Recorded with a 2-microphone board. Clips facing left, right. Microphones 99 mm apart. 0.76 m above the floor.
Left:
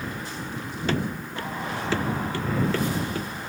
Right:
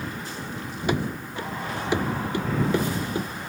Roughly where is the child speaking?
No child speaking in this recording.